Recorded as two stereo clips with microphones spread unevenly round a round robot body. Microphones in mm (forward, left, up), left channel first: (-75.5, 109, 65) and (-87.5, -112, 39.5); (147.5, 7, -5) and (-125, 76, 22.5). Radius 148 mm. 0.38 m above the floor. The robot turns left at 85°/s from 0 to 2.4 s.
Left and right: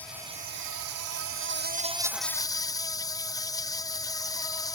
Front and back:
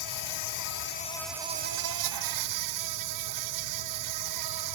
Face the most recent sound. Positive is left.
turn(degrees=160)